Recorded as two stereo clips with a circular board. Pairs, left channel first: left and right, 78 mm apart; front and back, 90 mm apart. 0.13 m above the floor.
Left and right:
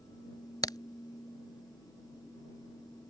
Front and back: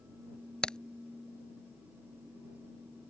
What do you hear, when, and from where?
0.6 s a crack: 80° left